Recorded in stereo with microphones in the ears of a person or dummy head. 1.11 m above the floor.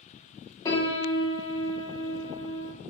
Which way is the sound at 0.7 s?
20° left (ahead or behind).